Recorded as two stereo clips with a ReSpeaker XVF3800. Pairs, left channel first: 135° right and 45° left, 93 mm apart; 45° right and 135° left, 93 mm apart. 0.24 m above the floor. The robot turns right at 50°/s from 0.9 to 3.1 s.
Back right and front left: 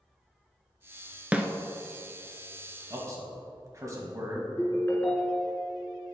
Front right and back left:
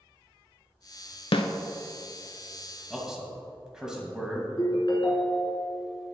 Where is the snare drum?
30° right, 0.5 m; by 1.5 s 25° right, 0.5 m.